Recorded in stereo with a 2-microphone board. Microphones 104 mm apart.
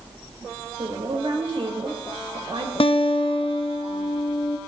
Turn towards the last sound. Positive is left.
turn(degrees=60)  # may be behind; listen again after turning